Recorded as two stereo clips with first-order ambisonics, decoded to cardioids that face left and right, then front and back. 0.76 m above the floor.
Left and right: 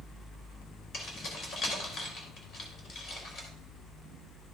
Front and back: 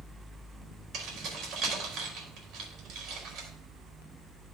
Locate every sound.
0.9 s keys jangling: 140° left, 2.5 m